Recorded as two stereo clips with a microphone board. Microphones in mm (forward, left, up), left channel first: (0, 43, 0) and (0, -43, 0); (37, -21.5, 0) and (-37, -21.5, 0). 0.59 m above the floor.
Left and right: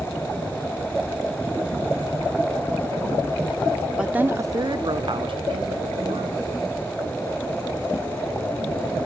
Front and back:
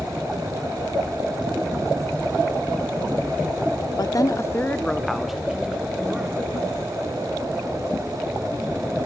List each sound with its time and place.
4.0 s a woman speaking: 10° right, 0.9 m; by 6.5 s 110° right, 2.5 m